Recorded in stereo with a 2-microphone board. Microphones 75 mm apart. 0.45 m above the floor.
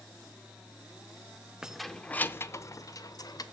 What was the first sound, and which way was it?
Keys jangling, 10° right (ahead or behind).